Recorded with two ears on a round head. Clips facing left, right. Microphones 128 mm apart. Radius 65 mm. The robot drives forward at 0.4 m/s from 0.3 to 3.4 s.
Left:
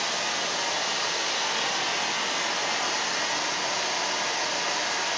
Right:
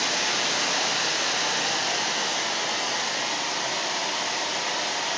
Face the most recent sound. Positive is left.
turn(degrees=-30)  # may be behind; listen again after turning